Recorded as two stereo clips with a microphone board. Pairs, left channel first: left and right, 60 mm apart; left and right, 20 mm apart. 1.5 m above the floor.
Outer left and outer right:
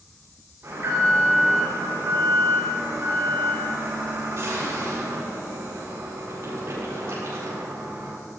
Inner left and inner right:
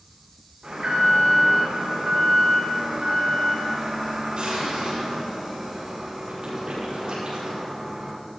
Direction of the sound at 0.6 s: 50° right (ahead or behind).